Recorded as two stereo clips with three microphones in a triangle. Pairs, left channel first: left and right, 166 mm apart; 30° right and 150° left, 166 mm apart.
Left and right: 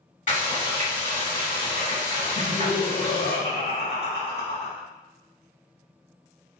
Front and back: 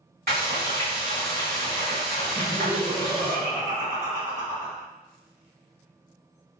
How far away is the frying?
About 1.8 m.